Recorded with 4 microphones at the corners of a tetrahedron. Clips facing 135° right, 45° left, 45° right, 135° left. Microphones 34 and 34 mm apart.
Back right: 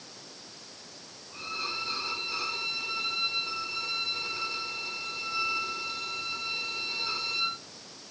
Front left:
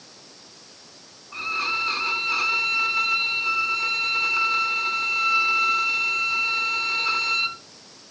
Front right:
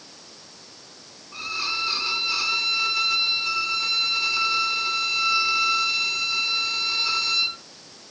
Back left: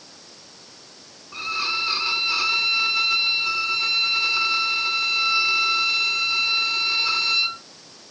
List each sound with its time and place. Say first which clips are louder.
1.3 s a violin: front left 10 dB, back left 3 dB; 60° left, 1.0 m